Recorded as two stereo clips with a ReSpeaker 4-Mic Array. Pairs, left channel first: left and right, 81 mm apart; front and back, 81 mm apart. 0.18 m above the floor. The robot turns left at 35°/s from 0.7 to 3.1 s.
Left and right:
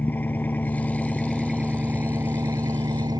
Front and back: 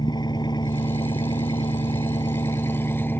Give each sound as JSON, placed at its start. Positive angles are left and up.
{"t": 0.0, "sound": "an engine running", "azimuth_deg": 20}